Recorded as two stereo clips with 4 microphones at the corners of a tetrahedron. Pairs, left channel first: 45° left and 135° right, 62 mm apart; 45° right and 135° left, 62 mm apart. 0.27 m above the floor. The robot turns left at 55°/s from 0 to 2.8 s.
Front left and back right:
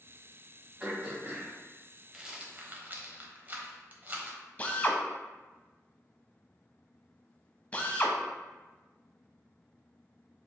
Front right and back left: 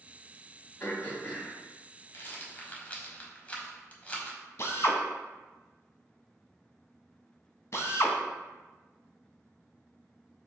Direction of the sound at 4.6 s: 15° right.